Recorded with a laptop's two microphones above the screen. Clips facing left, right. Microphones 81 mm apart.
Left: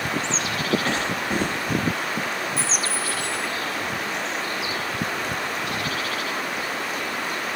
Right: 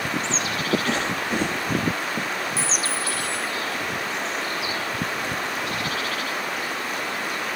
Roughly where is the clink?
Left.